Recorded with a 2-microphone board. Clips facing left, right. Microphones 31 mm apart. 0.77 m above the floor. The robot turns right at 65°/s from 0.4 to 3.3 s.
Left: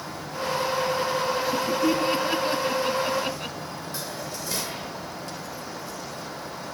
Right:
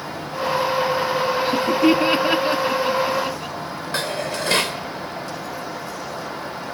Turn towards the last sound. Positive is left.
turn(degrees=-70)  # may be behind; listen again after turning